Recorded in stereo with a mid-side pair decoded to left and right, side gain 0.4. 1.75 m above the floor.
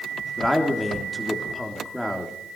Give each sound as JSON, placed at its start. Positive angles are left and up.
{"t": 0.4, "sound": "a man speaking", "azimuth_deg": 10, "distance_m": 3.5}